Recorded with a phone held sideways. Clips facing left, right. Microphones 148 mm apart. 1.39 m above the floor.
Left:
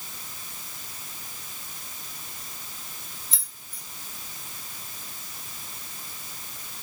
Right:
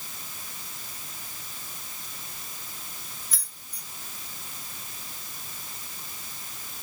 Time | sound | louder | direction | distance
3.3 | keys jangling | left 1 dB | 25° left (ahead or behind) | 1.3 m